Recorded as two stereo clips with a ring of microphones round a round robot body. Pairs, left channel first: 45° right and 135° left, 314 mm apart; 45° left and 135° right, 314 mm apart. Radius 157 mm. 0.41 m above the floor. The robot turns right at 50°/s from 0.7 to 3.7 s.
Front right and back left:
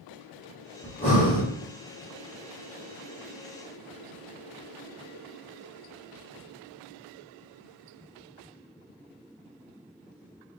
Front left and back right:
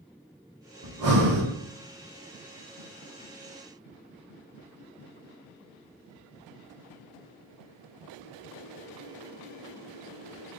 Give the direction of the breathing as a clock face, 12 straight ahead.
4 o'clock.